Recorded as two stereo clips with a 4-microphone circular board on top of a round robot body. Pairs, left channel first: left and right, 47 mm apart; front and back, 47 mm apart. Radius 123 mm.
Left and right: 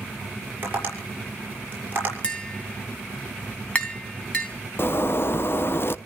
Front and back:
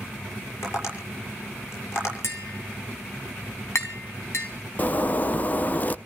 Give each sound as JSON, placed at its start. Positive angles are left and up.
{"t": 0.6, "sound": "tapping", "azimuth_deg": -30, "distance_m": 6.5}
{"t": 2.2, "sound": "tapping", "azimuth_deg": 25, "distance_m": 3.5}
{"t": 4.8, "sound": "a zipper", "azimuth_deg": 55, "distance_m": 0.7}